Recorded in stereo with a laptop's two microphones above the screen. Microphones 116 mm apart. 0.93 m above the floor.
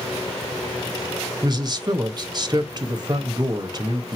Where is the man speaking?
35° right (ahead or behind), 0.8 m.